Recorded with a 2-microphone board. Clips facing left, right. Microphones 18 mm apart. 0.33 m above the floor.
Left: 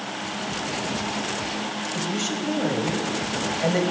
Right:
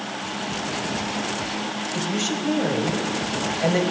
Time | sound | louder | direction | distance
1.9 | a woman speaking | right 2 dB | 5° right (ahead or behind) | 1.9 m